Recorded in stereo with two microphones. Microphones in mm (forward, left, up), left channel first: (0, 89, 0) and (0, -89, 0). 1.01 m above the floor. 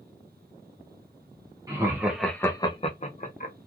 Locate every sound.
1.7 s laughter: 20° right (ahead or behind), 1.1 m; by 3.5 s 50° left (ahead or behind), 1.3 m